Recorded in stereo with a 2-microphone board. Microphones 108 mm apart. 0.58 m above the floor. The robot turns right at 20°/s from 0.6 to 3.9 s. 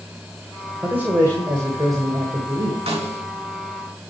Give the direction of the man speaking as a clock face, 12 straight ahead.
5 o'clock.